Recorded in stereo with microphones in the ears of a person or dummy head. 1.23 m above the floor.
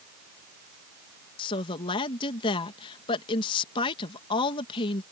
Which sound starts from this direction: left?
A woman speaking, at 1.4 s.